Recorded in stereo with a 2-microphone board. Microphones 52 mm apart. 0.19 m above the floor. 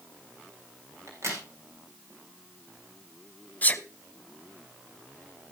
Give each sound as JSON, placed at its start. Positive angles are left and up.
{"t": 1.1, "sound": "a crack", "side_deg": -60, "distance_m": 4.5}
{"t": 3.6, "sound": "a sneeze", "side_deg": 30, "distance_m": 1.1}